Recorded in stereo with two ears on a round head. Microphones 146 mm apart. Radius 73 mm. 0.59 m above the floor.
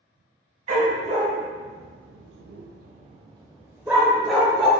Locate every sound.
0.7 s a dog barking: 45° right (ahead or behind), 1.4 m; by 4.7 s 5° left (ahead or behind), 1.3 m